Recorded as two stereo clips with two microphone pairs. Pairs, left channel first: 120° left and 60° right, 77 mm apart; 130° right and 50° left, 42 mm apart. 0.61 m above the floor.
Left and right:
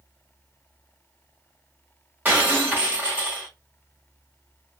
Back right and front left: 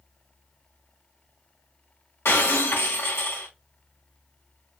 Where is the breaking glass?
130° right, 1.9 m.